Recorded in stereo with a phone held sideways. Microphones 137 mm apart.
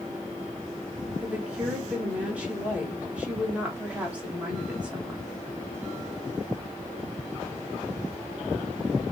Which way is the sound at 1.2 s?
10° right (ahead or behind).